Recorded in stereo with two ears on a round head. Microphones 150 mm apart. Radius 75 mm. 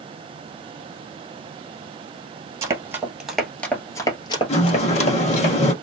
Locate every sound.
2.6 s running footsteps: 20° right (ahead or behind), 1.7 m; by 5.5 s 50° left (ahead or behind), 2 m
4.5 s a sliding door: 40° left (ahead or behind), 1.3 m